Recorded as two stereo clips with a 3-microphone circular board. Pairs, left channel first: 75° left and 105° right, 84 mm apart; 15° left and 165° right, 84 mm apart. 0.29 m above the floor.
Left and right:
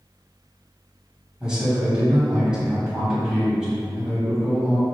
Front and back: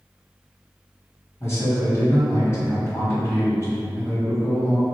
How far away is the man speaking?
About 1.5 m.